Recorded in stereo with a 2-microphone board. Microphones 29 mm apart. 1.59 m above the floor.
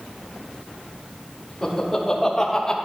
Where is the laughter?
25° left (ahead or behind), 3 m; by 2.8 s 20° left (ahead or behind), 1.3 m.